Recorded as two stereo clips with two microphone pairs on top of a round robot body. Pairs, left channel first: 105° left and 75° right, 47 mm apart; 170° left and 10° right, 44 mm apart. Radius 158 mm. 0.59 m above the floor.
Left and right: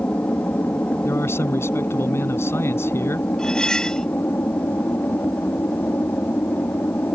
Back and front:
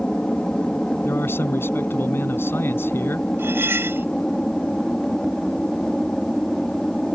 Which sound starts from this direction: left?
An aircraft, at 0.0 s.